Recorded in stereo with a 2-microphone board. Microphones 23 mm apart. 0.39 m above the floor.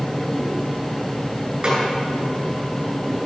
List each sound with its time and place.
1.6 s a snare drum: 35° right (ahead or behind), 4.5 m